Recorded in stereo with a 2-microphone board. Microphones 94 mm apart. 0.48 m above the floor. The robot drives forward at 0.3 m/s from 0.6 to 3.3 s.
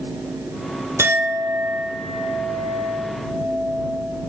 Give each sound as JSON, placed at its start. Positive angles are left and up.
{"t": 1.0, "sound": "a clink", "side_deg": -25, "distance_m": 1.1}